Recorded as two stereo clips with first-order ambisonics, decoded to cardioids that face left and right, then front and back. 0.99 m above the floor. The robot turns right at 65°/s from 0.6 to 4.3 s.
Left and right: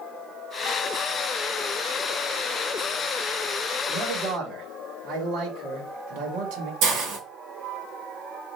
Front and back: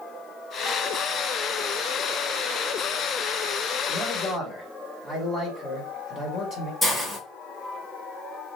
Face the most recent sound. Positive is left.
turn(degrees=-70)